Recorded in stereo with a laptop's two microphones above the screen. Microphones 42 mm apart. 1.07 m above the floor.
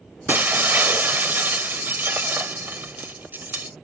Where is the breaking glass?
55° right (ahead or behind).